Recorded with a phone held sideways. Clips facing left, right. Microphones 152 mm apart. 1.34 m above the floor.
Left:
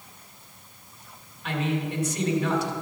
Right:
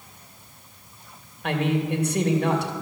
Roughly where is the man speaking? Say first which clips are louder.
Right 4 dB; right.